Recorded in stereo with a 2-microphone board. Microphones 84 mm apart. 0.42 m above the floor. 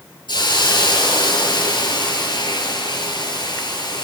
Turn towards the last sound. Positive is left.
turn(degrees=65)  # may be behind; listen again after turning